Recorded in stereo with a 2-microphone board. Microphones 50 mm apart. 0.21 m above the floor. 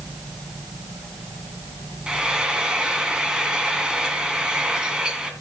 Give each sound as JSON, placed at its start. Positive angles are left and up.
{"t": 2.1, "sound": "frying", "side_deg": -15, "distance_m": 1.8}